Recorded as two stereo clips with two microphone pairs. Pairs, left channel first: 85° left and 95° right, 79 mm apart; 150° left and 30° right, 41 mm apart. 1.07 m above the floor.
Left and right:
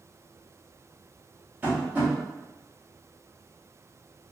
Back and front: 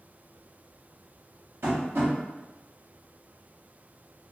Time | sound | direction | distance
1.6 | tapping | 30° right | 1.0 m